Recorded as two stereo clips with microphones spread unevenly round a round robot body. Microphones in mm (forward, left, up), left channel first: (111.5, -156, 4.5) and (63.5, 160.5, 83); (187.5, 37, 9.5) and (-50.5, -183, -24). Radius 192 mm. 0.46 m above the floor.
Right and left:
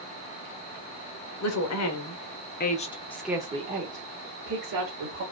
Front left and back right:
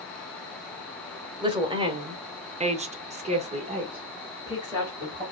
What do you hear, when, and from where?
1.4 s a woman speaking: 65° right, 1.5 m; by 5.2 s 140° left, 1.6 m